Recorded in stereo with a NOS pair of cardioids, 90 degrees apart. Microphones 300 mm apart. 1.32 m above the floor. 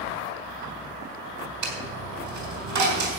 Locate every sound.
1.6 s a dropped coin: 70° right, 5 m